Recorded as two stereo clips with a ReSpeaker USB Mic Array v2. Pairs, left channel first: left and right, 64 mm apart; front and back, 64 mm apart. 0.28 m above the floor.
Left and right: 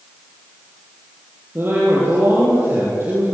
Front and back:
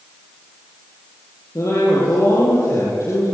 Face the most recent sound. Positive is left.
turn(degrees=-40)